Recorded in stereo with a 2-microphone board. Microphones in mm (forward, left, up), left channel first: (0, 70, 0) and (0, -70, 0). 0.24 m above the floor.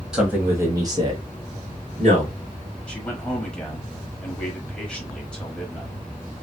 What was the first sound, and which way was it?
A man speaking, 5° right (ahead or behind).